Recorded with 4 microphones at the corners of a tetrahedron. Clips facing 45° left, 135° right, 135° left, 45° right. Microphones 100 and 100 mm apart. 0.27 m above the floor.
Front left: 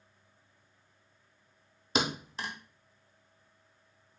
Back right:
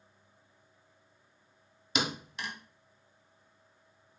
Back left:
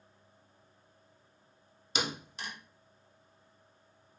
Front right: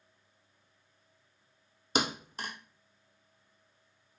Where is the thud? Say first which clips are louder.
Front left 2 dB, front right 4 dB; 5° right, 0.6 m.